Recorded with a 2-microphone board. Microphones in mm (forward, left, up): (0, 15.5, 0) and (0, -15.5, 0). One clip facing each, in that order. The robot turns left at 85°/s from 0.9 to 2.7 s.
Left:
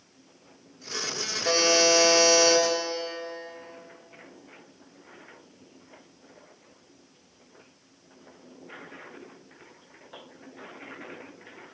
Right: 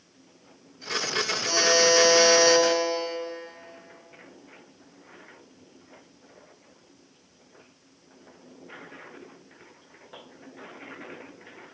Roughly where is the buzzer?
Ahead left.